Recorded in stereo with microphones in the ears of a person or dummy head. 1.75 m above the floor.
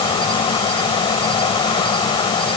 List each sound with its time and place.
0.0 s an insect: 15° left (ahead or behind)